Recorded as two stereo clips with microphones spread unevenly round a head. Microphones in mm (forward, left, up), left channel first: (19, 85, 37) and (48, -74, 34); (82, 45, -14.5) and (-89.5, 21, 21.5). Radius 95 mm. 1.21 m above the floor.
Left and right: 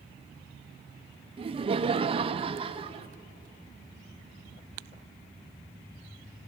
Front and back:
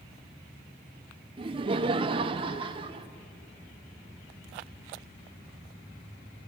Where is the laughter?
110° right, 0.6 m.